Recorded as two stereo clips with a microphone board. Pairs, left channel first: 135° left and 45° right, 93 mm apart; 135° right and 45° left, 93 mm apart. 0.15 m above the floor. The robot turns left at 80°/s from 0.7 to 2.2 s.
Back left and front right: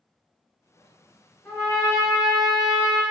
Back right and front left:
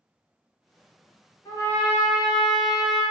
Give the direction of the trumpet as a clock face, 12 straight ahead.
6 o'clock.